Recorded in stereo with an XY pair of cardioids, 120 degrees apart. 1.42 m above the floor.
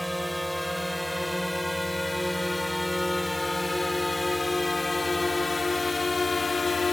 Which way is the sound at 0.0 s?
Straight ahead.